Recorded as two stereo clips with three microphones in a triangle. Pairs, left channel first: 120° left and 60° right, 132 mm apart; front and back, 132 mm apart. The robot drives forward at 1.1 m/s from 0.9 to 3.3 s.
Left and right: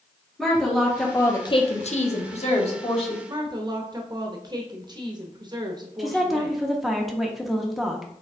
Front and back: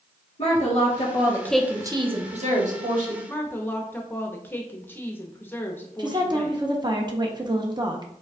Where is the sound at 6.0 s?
150° right, 0.6 m.